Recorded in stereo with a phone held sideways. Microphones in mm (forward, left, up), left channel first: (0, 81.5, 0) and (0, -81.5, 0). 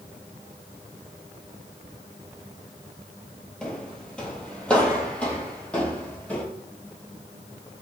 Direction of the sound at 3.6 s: 5° left (ahead or behind).